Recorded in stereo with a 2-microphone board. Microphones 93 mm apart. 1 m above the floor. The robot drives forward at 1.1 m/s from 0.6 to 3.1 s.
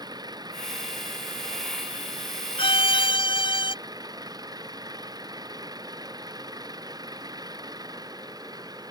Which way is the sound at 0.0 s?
50° right (ahead or behind).